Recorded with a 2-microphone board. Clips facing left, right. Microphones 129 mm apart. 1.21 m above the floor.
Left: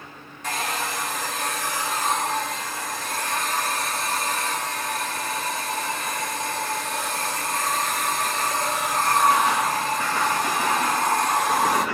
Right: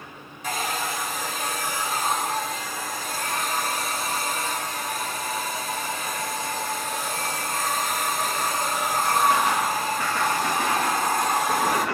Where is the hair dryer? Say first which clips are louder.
Even; 5° right (ahead or behind), 3 m.